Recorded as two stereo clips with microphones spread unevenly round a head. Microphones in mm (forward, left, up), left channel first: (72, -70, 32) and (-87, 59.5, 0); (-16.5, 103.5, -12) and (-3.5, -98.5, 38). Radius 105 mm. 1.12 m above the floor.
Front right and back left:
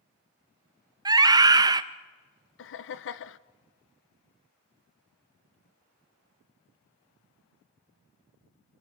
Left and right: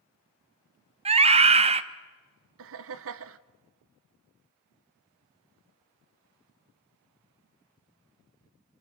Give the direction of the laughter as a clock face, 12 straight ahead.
2 o'clock.